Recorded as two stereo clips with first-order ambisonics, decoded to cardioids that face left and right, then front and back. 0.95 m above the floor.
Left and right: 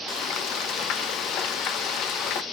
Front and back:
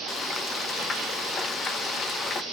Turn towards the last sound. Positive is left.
turn(degrees=60)